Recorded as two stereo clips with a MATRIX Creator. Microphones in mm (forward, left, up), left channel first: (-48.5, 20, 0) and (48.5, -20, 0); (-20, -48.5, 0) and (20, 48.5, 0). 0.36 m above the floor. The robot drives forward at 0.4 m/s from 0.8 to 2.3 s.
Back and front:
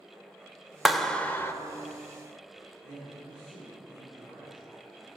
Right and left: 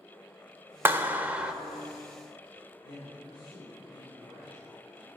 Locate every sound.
0.8 s a clap: 60° left, 0.6 m; by 1.5 s 135° left, 0.6 m
2.8 s a man speaking: 150° right, 3 m